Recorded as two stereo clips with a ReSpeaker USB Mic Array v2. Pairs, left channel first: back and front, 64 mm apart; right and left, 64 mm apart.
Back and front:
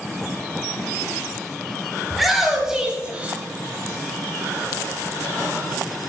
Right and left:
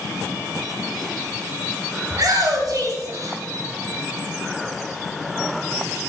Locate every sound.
2.1 s a shout: 90° left, 4.5 m; by 3.4 s 65° left, 3.5 m